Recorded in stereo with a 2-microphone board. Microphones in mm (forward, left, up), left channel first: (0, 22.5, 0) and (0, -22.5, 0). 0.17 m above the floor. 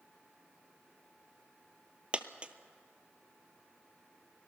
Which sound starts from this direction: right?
A dropped coin, at 2.1 s.